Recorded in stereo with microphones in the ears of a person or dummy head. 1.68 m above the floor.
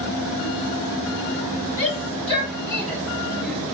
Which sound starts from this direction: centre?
A shout, at 1.8 s.